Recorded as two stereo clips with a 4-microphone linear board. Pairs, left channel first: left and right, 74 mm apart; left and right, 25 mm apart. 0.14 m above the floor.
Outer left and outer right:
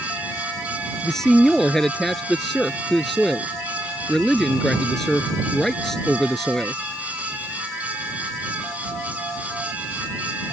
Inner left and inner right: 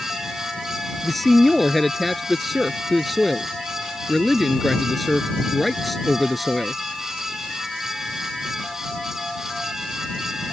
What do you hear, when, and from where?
1.0 s a man speaking: 5° left (ahead or behind)